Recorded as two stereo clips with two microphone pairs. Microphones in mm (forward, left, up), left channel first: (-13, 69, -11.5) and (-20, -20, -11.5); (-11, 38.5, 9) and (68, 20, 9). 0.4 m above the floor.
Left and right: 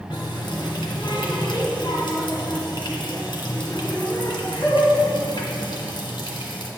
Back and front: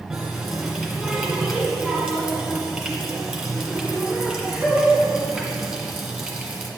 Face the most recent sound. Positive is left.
turn(degrees=65)